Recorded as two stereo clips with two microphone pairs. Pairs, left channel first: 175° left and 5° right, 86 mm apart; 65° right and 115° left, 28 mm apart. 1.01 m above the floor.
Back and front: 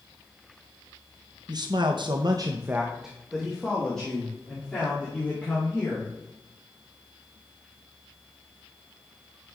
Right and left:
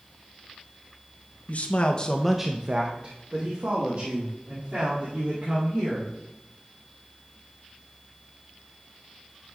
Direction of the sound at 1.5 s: 35° right.